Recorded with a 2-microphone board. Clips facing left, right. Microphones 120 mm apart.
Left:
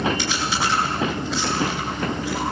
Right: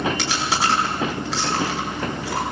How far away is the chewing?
About 7.5 m.